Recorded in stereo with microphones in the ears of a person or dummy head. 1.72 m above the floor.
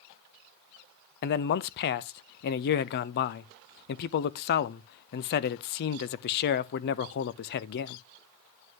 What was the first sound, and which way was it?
A man speaking, 55° left (ahead or behind).